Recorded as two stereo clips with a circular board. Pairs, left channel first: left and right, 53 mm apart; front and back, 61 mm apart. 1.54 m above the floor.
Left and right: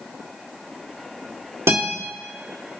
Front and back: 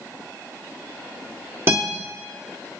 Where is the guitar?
130° right, 1.4 m.